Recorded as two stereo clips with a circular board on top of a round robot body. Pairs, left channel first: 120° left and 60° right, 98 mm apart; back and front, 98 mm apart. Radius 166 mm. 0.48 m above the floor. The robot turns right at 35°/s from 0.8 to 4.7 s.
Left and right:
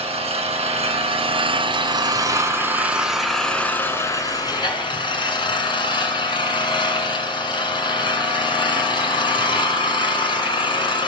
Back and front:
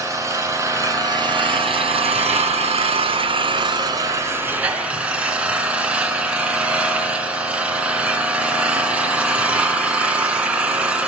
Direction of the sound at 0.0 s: 55° right.